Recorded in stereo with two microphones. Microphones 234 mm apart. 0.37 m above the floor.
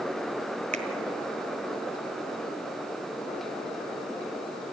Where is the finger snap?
30° right (ahead or behind), 1.8 m.